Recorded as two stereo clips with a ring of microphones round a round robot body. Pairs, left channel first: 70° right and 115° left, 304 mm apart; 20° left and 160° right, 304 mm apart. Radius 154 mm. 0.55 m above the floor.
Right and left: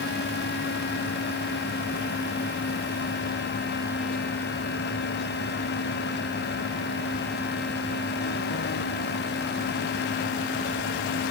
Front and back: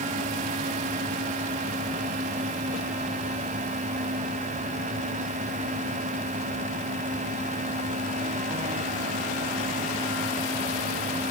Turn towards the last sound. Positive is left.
No sound to turn to.